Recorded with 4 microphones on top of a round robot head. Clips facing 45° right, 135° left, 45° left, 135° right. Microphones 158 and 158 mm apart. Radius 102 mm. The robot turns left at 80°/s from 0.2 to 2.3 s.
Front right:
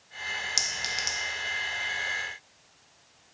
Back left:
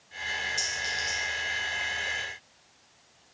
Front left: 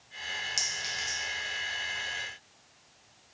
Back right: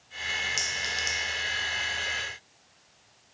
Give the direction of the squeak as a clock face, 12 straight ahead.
No squeak in this recording.